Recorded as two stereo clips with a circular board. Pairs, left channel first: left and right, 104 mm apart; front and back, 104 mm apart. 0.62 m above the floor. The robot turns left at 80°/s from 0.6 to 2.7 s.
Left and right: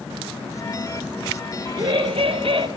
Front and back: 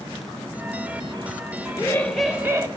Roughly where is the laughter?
Ahead right.